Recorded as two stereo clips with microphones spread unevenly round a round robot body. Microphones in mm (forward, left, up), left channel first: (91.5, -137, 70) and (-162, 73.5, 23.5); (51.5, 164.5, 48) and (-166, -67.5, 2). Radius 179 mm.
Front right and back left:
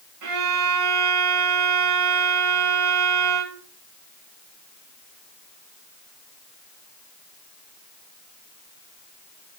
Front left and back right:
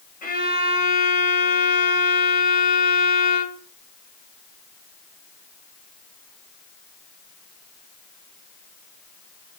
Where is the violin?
115° left, 2.5 m.